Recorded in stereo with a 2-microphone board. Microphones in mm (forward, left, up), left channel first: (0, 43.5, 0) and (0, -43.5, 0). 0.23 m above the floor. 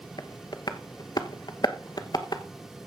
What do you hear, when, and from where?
0.2 s tapping: 50° left (ahead or behind), 0.9 m